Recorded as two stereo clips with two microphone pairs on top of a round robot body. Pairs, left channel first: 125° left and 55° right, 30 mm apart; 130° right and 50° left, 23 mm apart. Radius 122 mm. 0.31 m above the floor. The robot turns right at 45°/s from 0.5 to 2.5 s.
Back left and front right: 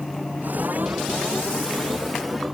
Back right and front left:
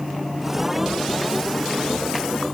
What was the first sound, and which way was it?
Only background noise.